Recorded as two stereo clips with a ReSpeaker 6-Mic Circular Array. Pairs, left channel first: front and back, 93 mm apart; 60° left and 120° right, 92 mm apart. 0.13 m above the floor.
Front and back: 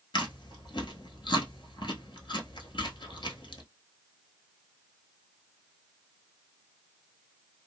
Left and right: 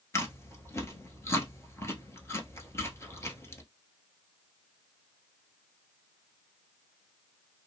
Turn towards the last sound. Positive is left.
turn(degrees=5)